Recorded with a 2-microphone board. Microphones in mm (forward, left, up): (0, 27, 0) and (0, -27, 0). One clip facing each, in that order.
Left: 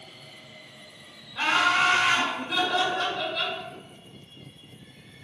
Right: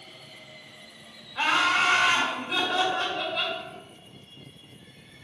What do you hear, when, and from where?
1.4 s laughter: 20° right (ahead or behind), 1.6 m